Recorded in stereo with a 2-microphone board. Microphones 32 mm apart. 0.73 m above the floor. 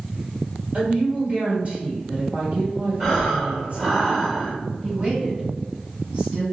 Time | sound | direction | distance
0.7 | a woman speaking | 40° right (ahead or behind) | 1.3 m
3.0 | breathing | 5° right (ahead or behind) | 1.5 m
4.8 | a woman speaking | 25° right (ahead or behind) | 1.7 m